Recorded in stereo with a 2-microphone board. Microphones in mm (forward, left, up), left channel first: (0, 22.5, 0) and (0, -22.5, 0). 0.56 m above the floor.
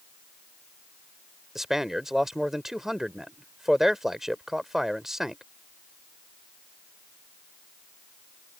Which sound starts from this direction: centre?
A man speaking, at 1.6 s.